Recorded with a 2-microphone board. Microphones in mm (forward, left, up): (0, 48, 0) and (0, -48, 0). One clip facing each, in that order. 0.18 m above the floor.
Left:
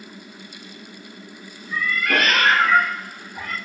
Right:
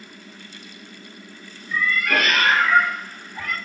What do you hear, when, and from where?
1.7 s a cat meowing: 50° left (ahead or behind), 0.8 m; by 3.5 s 35° left (ahead or behind), 0.9 m